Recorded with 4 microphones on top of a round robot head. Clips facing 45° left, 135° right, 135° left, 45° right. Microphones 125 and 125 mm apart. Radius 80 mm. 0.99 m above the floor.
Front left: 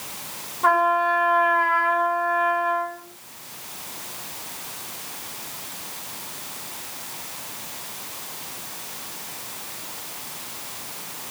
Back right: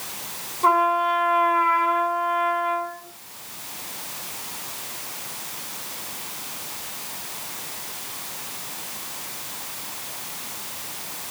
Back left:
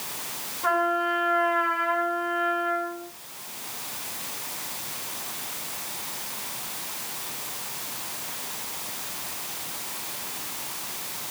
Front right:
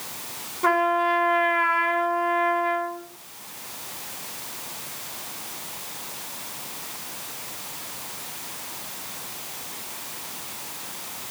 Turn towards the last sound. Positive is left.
turn(degrees=-50)